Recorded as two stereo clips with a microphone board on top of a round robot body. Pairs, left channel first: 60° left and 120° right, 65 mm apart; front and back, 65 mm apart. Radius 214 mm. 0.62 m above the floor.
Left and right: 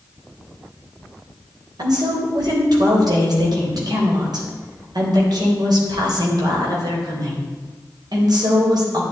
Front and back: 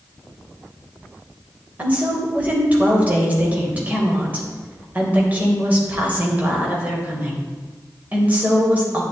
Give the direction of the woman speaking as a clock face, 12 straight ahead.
4 o'clock.